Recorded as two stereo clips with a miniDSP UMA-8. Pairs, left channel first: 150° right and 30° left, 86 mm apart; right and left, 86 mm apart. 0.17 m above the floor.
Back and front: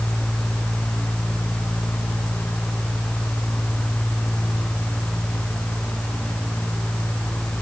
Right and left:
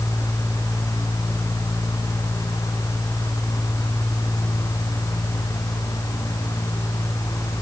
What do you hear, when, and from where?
Only background noise.